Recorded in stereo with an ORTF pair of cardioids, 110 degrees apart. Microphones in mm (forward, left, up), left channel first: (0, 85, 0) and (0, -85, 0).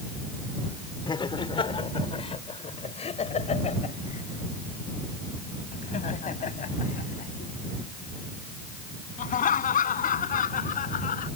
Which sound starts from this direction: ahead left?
Laughter, at 1.1 s.